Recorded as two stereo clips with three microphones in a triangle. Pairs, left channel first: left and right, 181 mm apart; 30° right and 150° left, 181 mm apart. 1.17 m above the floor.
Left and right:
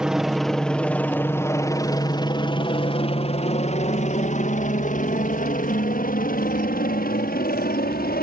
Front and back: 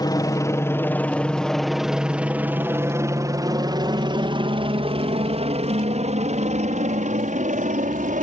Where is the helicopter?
10° right; by 8.2 s 115° left.